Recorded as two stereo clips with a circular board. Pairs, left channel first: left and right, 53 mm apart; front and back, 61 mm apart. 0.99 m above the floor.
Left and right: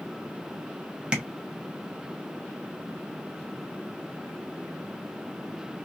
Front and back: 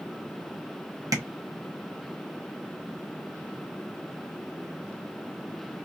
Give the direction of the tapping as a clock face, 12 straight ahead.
5 o'clock.